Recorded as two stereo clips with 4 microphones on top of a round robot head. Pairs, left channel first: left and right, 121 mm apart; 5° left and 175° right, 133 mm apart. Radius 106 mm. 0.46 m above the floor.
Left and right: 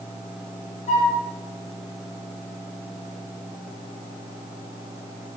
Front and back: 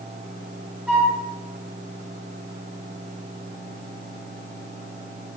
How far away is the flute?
About 2.5 m.